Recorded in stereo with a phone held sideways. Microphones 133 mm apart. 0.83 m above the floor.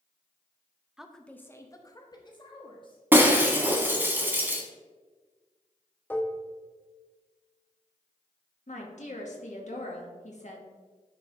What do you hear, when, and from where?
1.0 s a woman speaking: 5° right (ahead or behind), 0.5 m; by 4.1 s 40° left (ahead or behind), 2.5 m
3.1 s breaking glass: 15° right (ahead or behind), 1.1 m
6.1 s dishes clattering: 15° left (ahead or behind), 0.6 m
8.7 s a woman speaking: 55° left (ahead or behind), 1.4 m